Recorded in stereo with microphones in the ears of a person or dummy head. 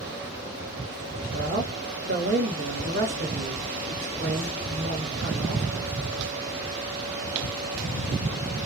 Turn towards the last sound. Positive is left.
turn(degrees=-55)  # may be behind; listen again after turning